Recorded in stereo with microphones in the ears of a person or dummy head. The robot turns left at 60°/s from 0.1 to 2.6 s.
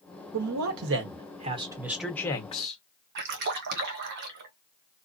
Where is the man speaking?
80° right, 1.0 m; by 2.8 s 145° left, 1.0 m.